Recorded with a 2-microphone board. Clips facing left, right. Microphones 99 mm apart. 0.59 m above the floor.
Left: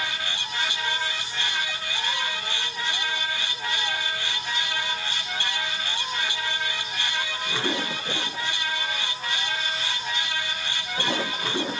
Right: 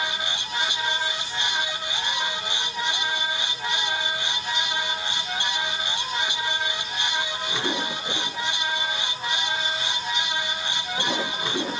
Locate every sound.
Only background noise.